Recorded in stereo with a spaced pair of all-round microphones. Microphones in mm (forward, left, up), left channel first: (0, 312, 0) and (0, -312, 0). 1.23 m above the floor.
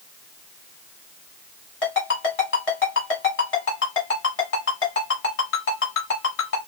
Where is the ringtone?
60° left (ahead or behind), 1.5 m.